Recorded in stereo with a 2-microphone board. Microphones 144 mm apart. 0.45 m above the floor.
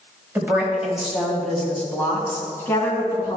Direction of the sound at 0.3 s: 15° right (ahead or behind).